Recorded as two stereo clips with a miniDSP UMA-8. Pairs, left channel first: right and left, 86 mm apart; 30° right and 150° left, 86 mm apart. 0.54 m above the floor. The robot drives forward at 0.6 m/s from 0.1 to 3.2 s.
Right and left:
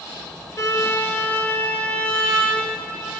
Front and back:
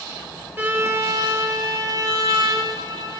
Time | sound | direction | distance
0.6 | a violin | 145° right | 0.7 m